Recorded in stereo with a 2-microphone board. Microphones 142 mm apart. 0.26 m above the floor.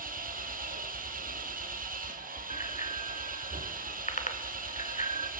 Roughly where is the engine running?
Right.